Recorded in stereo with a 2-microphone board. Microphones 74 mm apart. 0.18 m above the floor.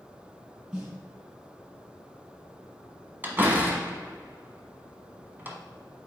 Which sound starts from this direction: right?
A door slam, at 3.2 s.